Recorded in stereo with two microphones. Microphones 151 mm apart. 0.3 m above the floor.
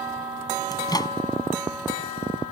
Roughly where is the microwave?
Left.